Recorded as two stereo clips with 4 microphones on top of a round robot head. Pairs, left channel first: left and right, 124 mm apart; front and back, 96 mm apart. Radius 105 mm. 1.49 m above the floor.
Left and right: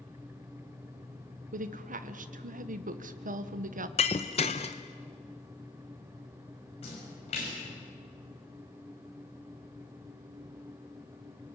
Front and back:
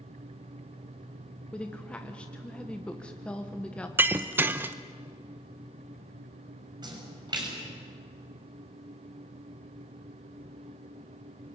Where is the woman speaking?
80° right, 1.3 m.